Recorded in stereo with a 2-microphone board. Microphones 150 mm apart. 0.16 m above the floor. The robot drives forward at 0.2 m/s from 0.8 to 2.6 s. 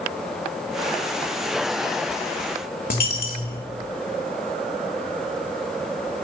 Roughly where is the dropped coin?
Left.